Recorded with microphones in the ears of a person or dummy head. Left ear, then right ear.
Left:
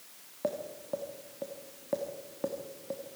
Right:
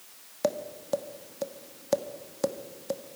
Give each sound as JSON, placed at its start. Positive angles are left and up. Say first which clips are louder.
{"t": 0.4, "sound": "tapping", "louder": "right 5 dB", "side_deg": -75, "distance_m": 1.2}